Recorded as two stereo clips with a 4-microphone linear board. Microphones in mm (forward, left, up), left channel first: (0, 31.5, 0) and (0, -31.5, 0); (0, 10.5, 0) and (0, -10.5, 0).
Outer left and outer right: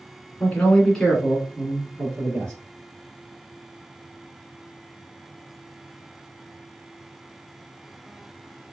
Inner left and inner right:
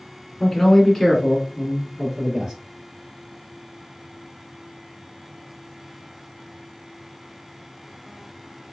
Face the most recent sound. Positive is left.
turn(degrees=-35)  # may be behind; listen again after turning